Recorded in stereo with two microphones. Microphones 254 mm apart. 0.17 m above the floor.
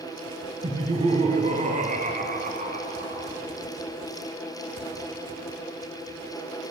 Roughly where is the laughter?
Centre.